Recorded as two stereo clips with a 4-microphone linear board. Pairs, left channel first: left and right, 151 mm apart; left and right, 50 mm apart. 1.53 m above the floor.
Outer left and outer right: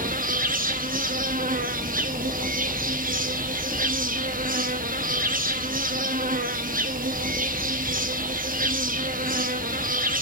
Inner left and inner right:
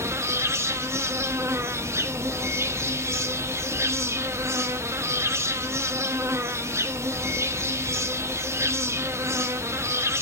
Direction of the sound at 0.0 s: 65° right (ahead or behind).